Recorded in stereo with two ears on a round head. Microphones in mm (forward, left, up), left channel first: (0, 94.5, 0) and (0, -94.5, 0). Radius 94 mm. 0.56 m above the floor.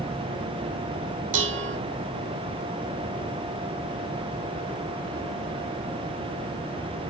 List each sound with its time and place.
1.3 s dishes clattering: 65° right (ahead or behind), 1.0 m